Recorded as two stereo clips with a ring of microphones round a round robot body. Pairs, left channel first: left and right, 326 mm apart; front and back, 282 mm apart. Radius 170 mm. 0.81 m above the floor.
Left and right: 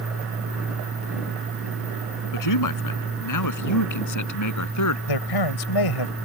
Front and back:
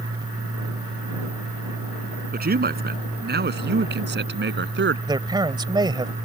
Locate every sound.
2.3 s a man speaking: 120° left; by 5.0 s 130° left
5.1 s a man speaking: 105° left